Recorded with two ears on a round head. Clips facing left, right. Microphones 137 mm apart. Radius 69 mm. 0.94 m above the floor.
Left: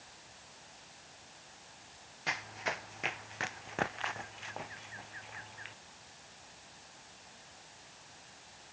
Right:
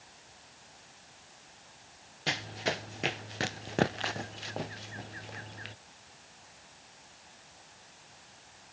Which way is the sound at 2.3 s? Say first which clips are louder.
Right 5 dB; 35° right (ahead or behind).